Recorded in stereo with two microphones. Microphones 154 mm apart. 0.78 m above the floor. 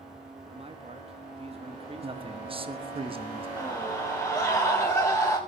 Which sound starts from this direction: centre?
A scream, at 3.6 s.